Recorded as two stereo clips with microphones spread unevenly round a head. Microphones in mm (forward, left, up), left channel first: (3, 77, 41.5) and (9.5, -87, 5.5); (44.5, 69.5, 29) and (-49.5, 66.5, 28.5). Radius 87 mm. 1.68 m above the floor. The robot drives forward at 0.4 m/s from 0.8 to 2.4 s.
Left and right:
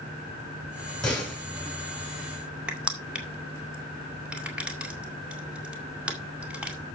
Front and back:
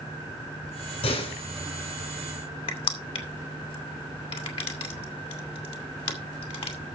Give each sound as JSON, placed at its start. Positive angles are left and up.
{"t": 1.0, "sound": "a door slam", "azimuth_deg": 10, "distance_m": 7.5}
{"t": 2.7, "sound": "crushing", "azimuth_deg": 0, "distance_m": 2.0}